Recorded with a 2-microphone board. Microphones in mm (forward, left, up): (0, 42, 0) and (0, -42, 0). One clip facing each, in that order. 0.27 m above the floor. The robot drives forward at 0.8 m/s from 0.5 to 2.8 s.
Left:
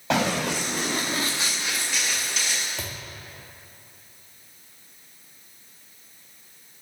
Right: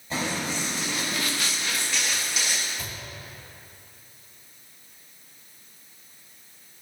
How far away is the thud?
About 3.5 m.